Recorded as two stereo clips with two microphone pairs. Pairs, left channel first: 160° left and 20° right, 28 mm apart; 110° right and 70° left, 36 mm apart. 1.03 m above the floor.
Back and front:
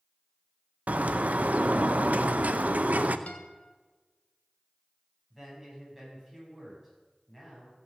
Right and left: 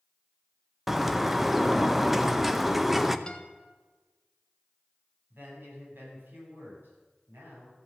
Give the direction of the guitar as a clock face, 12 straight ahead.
6 o'clock.